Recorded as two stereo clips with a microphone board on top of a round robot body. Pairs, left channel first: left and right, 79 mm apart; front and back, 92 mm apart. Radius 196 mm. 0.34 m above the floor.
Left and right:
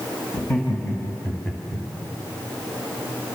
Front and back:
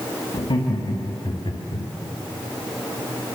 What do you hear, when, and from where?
0.3 s laughter: 30° left, 3.5 m; by 1.9 s 10° left, 2.5 m